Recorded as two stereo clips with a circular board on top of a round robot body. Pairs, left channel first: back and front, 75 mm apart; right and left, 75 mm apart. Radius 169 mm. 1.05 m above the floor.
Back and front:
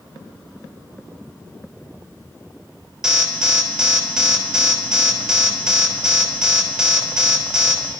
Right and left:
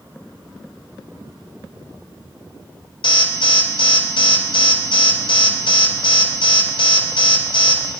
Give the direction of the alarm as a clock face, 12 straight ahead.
3 o'clock.